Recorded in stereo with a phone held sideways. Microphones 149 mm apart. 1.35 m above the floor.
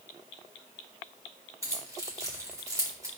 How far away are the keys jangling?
About 3.5 m.